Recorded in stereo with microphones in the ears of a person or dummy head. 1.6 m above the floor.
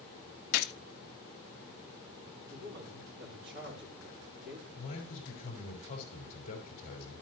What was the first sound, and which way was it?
A gunshot, 50° left (ahead or behind).